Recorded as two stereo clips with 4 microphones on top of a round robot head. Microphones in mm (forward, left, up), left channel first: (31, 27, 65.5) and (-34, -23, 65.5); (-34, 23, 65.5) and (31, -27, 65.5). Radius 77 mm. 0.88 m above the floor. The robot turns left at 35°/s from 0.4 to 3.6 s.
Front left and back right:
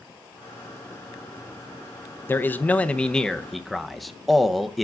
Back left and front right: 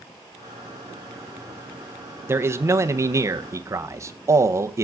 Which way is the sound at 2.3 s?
5° right.